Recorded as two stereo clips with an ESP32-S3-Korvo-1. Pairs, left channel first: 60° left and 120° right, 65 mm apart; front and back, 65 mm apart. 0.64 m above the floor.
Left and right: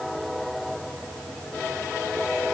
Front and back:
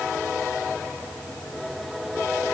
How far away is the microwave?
I don't hear a microwave.